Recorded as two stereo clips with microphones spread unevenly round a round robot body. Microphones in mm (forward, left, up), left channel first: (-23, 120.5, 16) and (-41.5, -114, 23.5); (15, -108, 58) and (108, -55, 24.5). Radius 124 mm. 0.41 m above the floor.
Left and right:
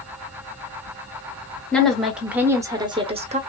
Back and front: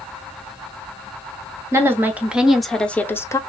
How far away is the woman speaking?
About 1.3 m.